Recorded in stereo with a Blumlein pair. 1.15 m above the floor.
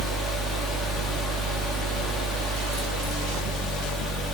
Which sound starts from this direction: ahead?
A fan, at 0.0 s.